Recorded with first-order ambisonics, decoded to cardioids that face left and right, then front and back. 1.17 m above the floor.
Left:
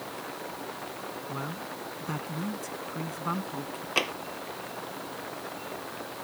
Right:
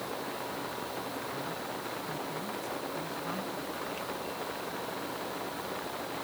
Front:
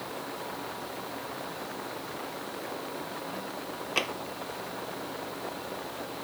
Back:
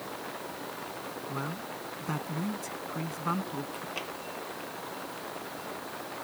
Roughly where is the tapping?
Ahead left.